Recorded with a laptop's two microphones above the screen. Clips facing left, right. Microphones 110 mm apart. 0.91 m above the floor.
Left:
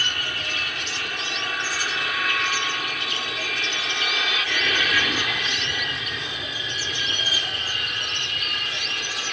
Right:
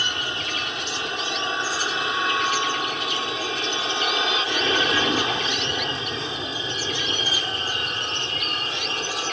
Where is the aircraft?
20° right (ahead or behind); by 9.3 s 35° right (ahead or behind).